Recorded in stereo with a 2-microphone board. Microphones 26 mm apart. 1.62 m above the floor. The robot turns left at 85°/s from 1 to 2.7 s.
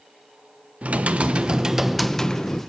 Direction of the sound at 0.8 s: 95° right.